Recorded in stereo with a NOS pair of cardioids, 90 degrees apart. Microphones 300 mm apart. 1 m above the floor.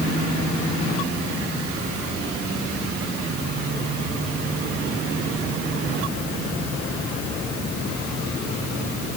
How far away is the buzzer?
I don't hear a buzzer.